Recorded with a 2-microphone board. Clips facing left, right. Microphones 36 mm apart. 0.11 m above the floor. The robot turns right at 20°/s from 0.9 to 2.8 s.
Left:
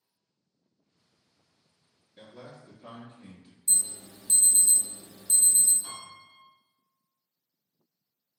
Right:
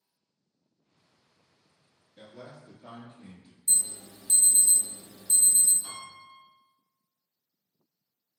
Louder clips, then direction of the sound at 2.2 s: Even; 15° left (ahead or behind).